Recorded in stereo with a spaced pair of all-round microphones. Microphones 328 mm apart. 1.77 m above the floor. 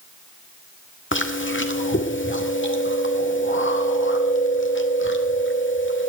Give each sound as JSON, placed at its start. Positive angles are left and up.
{"t": 1.1, "sound": "chewing", "side_deg": 35, "distance_m": 2.0}